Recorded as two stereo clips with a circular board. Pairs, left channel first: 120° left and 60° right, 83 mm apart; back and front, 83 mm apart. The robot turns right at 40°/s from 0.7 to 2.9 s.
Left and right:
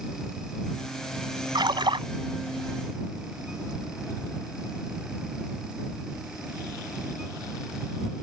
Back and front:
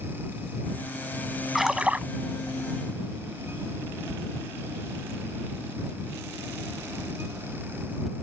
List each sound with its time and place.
1.6 s a splash: 90° right; by 2.1 s 65° right